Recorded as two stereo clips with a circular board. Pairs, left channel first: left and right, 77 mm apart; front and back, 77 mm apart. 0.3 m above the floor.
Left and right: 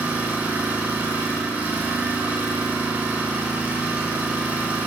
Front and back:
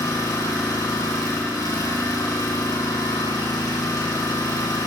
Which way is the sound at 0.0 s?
30° right.